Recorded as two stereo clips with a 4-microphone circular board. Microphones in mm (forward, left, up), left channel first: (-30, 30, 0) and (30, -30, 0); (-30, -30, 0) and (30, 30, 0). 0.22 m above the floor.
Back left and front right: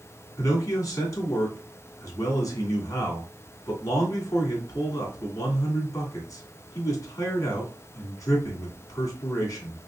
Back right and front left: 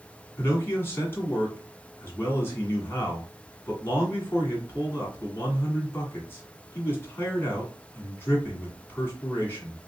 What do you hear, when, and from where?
0.4 s a man speaking: 170° left, 1.8 m